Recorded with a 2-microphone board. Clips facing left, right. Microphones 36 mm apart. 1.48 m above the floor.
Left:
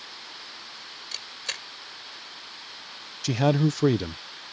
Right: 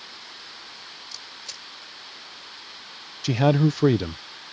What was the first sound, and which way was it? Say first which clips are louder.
A camera shutter: left 5 dB; 65° left (ahead or behind).